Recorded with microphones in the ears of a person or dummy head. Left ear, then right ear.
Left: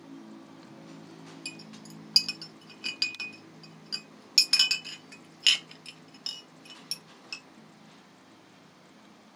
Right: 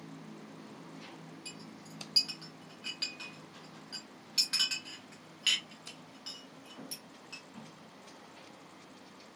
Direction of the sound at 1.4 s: 35° left (ahead or behind).